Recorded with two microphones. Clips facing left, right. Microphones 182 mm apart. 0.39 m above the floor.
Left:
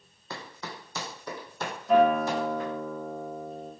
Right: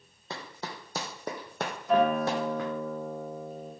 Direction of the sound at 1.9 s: Centre (ahead or behind).